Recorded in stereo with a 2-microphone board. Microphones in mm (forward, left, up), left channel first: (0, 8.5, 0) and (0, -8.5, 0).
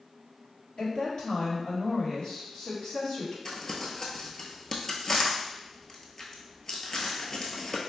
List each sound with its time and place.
0.8 s a woman speaking: 60° left (ahead or behind), 1.9 m
3.5 s crumpling: 35° left (ahead or behind), 0.6 m